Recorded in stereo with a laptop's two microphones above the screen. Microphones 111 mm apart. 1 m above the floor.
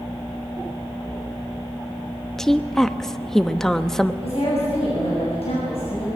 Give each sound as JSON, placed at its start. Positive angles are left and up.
{"t": 2.4, "sound": "a woman speaking", "side_deg": 5, "distance_m": 1.0}
{"t": 4.2, "sound": "a woman speaking", "side_deg": 75, "distance_m": 6.5}